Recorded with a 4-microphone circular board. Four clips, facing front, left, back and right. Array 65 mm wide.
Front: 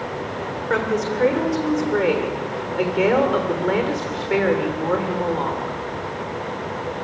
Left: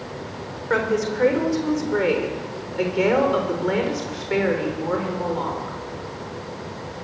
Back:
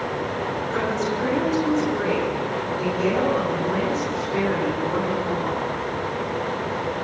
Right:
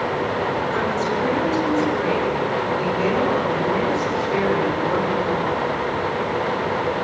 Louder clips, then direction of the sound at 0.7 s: Right 1 dB, front 5 dB; 40° left.